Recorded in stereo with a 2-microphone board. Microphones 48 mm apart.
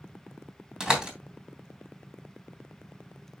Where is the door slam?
15° right (ahead or behind), 3 m.